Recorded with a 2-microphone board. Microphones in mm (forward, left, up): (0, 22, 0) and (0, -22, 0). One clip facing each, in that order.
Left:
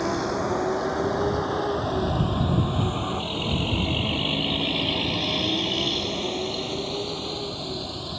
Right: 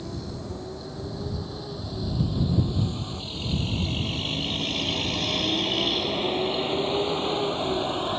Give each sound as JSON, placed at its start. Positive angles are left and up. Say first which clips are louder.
{"t": 0.0, "sound": "a vehicle", "louder": "left 11 dB", "side_deg": 65}